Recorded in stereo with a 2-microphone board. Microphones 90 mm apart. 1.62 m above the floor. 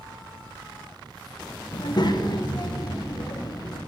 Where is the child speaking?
50° left (ahead or behind), 1.2 m.